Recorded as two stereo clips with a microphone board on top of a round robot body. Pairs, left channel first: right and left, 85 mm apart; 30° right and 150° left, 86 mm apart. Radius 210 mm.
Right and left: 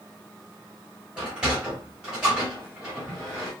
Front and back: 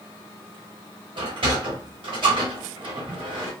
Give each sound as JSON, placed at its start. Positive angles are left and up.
{"t": 1.2, "sound": "a sliding door", "azimuth_deg": 170, "distance_m": 0.9}